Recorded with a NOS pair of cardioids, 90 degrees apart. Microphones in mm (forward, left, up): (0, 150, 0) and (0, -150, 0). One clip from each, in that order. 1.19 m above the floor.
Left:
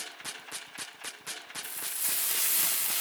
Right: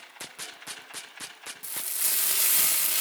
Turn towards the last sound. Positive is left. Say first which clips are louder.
# right 5 dB
turn(degrees=-25)